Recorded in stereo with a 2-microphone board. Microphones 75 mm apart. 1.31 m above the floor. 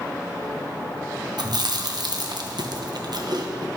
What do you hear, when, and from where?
1.4 s chewing: 65° right (ahead or behind), 0.8 m